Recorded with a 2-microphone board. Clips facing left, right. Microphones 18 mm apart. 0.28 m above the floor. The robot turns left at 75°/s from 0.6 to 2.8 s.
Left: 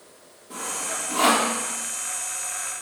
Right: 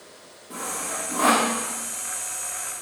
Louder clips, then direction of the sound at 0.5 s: Even; 5° left (ahead or behind).